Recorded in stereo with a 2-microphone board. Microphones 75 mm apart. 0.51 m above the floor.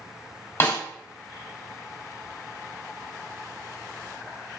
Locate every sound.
0.6 s a snare drum: 35° left (ahead or behind), 0.9 m